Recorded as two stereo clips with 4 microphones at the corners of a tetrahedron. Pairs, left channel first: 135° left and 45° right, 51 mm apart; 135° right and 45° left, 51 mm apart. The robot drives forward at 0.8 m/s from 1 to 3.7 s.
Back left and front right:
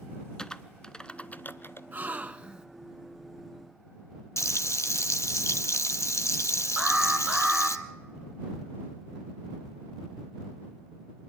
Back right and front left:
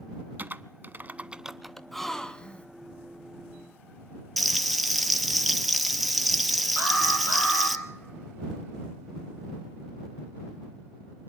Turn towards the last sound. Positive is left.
turn(degrees=-130)